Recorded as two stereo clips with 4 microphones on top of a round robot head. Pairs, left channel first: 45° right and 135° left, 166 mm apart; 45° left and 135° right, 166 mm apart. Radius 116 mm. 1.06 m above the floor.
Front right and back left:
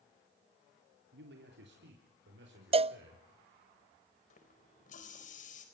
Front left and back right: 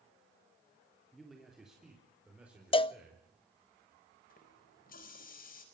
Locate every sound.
1.1 s a man speaking: 130° left, 3.5 m; by 3.2 s 140° left, 5.5 m
2.7 s a cowbell: 90° left, 0.5 m
4.3 s a running tap: 5° left, 4 m